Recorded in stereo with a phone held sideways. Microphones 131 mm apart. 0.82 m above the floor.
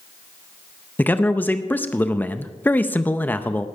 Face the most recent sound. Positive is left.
turn(degrees=15)  # may be behind; listen again after turning